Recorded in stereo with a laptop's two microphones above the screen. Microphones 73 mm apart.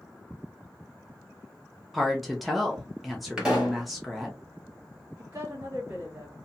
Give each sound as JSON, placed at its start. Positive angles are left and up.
{"t": 1.9, "sound": "a woman speaking", "side_deg": 0, "distance_m": 0.5}
{"t": 3.4, "sound": "a pop", "side_deg": -10, "distance_m": 1.0}
{"t": 5.2, "sound": "a woman speaking", "side_deg": -40, "distance_m": 2.0}